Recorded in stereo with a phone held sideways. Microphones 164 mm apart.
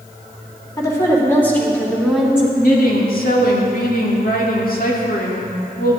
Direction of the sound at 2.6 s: 60° left (ahead or behind).